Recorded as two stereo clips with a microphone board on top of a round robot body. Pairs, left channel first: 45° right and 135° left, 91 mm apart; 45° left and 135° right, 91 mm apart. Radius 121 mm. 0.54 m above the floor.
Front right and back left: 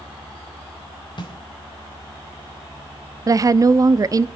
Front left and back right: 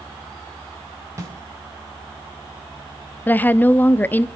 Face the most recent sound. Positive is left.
turn(degrees=105)